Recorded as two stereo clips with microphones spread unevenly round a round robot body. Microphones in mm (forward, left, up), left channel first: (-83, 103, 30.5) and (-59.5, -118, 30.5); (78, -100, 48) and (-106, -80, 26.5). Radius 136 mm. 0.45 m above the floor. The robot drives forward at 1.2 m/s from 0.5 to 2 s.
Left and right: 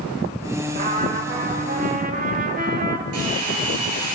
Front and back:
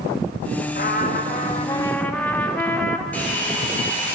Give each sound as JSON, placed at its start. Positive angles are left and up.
{"t": 0.8, "sound": "a trumpet", "azimuth_deg": -25, "distance_m": 1.9}
{"t": 3.1, "sound": "a hair dryer", "azimuth_deg": -90, "distance_m": 9.5}